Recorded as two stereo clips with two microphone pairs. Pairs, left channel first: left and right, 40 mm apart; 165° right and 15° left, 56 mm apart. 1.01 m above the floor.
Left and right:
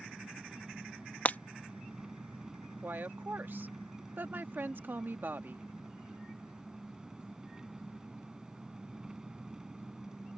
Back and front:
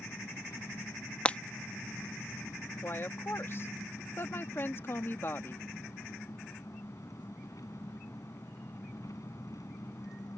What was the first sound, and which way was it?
An engine running, 170° right.